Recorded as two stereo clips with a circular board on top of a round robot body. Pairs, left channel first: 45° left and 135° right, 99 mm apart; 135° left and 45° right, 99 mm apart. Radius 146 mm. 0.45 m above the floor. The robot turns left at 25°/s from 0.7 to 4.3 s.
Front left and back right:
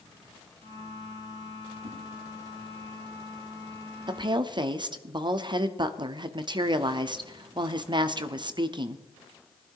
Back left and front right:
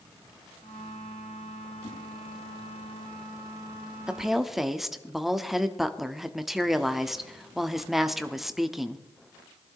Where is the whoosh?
170° right, 7.5 m; by 2.0 s 175° right, 7.5 m.